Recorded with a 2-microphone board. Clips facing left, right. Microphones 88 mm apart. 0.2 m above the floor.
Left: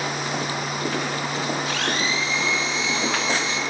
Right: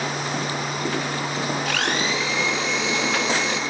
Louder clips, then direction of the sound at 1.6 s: Right 1 dB; 65° right (ahead or behind).